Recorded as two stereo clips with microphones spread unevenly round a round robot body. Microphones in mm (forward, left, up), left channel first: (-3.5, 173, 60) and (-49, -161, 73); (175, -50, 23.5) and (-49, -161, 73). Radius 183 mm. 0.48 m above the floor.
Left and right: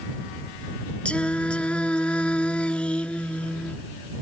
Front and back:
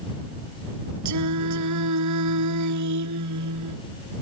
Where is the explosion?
No explosion in this recording.